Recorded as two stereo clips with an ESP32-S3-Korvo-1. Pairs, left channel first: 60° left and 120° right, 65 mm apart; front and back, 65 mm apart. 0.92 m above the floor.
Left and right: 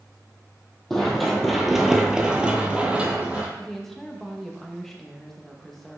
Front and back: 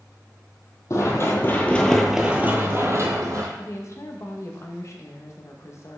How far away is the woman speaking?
About 0.9 m.